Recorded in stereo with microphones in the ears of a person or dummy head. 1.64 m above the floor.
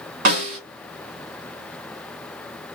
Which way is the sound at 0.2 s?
40° right (ahead or behind).